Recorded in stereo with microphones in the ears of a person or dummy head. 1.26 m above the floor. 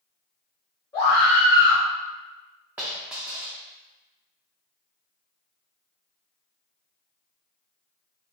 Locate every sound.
0.9 s a scream: 15° left (ahead or behind), 1.8 m
2.8 s a dropped coin: 10° right (ahead or behind), 0.9 m